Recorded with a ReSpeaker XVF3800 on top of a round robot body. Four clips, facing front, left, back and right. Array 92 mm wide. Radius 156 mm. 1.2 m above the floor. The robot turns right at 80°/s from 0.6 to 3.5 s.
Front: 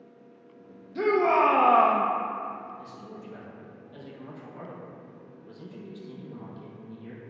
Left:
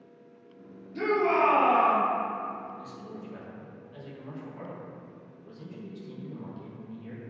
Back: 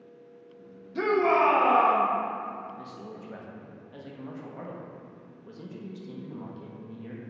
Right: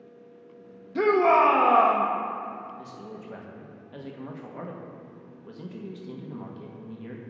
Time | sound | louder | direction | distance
0.9 | a shout | right 5 dB, front 1 dB | 90° right | 0.9 m
2.8 | a man speaking | right 1 dB, back 1 dB | 165° right | 1.6 m